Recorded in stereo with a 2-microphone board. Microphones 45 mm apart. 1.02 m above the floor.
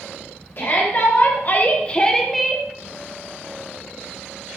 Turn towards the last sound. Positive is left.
turn(degrees=-5)  # may be behind; listen again after turning